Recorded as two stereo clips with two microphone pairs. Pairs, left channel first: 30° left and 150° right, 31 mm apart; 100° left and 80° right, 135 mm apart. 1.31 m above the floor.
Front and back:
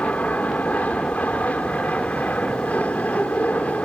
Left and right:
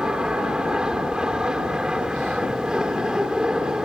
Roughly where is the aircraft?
Ahead.